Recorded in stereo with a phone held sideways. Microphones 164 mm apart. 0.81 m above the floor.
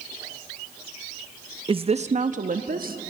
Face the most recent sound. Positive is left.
turn(degrees=-65)  # may be behind; listen again after turning